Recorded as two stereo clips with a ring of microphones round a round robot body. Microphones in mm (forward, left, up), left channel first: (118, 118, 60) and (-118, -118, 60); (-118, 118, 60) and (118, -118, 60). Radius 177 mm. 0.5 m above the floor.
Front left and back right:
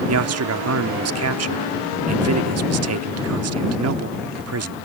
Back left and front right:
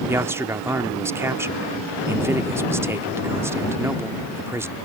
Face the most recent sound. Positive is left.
turn(degrees=-125)